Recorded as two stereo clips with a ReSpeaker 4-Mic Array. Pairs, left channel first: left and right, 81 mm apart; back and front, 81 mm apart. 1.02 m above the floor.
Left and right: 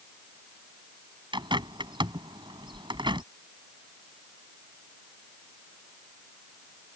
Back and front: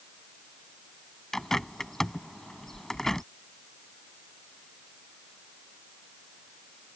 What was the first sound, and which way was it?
A bird, 95° right.